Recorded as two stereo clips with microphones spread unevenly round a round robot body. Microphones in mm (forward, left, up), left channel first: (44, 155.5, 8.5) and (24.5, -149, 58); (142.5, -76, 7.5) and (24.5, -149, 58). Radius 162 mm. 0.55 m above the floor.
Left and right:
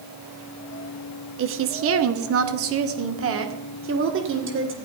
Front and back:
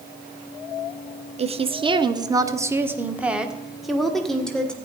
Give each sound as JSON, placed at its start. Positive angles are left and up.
{"t": 1.4, "sound": "a woman speaking", "azimuth_deg": -110, "distance_m": 1.0}